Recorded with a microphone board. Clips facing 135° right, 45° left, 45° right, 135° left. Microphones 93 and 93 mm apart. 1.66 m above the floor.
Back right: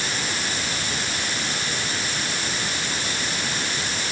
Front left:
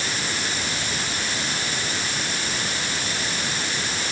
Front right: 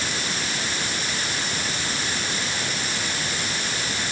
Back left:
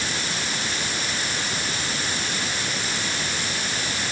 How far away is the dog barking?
No dog barking in this recording.